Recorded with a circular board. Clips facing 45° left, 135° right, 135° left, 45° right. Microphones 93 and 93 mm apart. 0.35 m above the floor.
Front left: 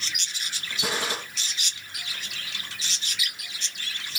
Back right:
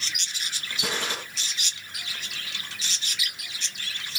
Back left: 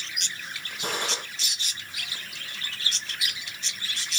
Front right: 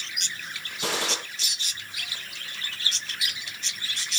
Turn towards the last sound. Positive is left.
turn(degrees=-35)